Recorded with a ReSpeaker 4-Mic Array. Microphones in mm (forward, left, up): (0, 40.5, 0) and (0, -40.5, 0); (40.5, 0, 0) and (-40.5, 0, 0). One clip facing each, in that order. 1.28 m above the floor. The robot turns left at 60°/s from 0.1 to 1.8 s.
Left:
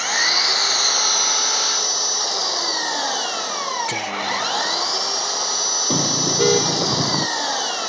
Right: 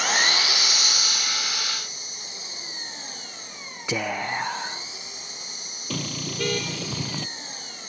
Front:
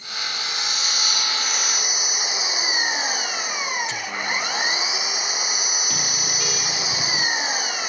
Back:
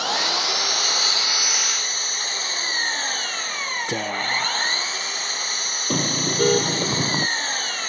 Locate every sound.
0.0 s an engine running: straight behind; by 7.9 s 80° left
3.9 s whispering: 165° right
5.9 s a car horn: 140° left